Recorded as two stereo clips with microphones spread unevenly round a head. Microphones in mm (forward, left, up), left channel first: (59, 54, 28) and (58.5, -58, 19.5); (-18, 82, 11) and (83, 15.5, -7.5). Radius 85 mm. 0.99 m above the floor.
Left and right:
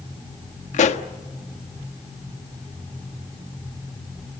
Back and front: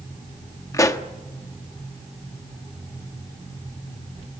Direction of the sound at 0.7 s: 85° left.